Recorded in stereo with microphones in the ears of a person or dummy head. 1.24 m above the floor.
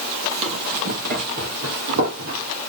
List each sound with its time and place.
0.3 s running footsteps: 35° right (ahead or behind), 1.7 m; by 2.6 s 65° right (ahead or behind), 3 m